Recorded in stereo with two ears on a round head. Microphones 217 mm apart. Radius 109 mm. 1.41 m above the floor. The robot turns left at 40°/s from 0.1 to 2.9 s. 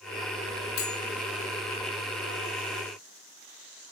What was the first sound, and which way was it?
Cutlery clinking, 60° left (ahead or behind).